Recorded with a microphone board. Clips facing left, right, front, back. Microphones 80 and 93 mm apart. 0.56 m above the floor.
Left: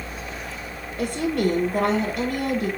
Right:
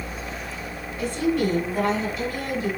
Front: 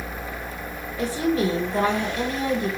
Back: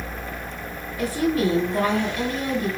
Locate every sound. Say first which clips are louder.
1.0 s a woman speaking: even, back 1 dB; 60° left, 2.5 m